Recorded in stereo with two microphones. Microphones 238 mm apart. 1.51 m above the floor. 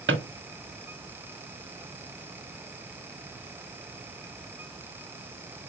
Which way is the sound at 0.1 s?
50° right (ahead or behind).